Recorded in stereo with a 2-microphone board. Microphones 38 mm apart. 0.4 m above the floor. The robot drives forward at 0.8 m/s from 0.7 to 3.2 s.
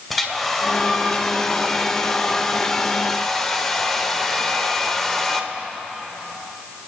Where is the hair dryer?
5° left (ahead or behind), 1.6 m; by 5.5 s 10° left (ahead or behind), 1.1 m.